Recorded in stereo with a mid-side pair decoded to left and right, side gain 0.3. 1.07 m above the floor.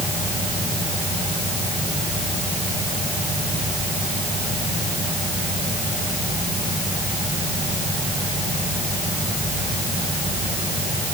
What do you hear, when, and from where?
Only background noise.